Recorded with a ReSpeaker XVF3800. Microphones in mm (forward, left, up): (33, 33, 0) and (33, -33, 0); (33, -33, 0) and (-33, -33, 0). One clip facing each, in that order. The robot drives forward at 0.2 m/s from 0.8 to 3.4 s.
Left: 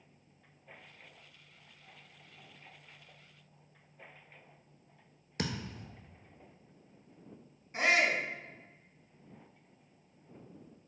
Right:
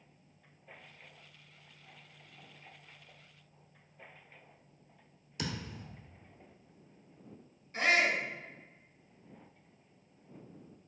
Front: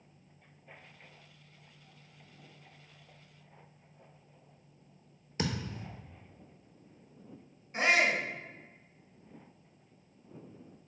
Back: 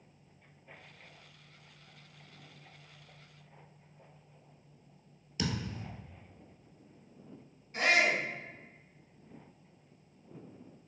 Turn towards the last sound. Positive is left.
turn(degrees=40)